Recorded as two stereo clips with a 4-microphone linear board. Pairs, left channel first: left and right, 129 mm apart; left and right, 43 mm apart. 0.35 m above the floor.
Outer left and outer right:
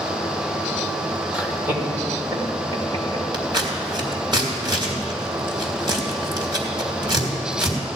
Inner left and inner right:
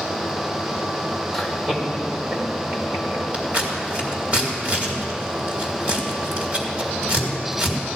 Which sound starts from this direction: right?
Scissors, at 3.3 s.